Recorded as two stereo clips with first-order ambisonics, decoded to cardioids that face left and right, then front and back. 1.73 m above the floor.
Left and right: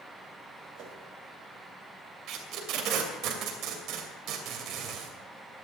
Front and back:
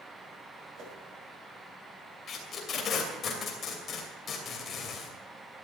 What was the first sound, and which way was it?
A whoosh, 130° right.